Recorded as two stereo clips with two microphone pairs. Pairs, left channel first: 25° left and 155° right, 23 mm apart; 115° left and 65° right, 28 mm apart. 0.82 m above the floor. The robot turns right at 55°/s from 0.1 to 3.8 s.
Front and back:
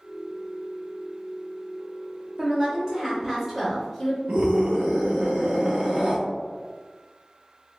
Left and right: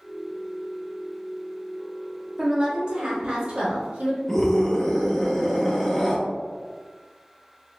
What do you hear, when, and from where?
2.4 s a woman speaking: 130° right, 1.2 m; by 4.2 s 50° right, 1.2 m
4.3 s a scream: 165° right, 0.8 m